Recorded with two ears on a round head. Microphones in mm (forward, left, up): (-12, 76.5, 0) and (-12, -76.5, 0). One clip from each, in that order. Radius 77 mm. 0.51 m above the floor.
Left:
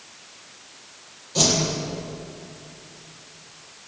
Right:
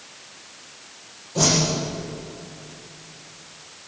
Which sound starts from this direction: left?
A whoosh, at 1.4 s.